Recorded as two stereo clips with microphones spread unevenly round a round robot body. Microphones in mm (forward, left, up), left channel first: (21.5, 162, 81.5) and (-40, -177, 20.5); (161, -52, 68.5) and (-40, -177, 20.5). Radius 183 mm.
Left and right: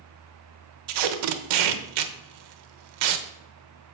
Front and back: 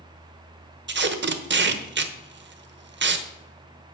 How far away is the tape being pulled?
About 1.1 m.